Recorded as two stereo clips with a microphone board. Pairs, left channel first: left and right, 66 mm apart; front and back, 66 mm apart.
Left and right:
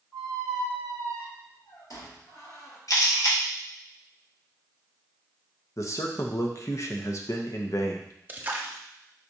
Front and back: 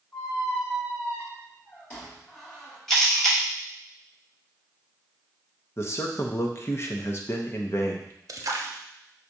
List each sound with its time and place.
0.1 s a squeak: 65° left, 2 m
2.9 s a camera shutter: 85° left, 1.2 m
5.8 s a man speaking: 50° left, 0.8 m
8.3 s a splash: 150° right, 0.6 m